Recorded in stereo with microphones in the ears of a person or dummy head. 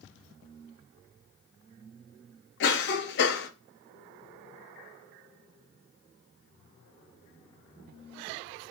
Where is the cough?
60° left (ahead or behind), 0.6 m.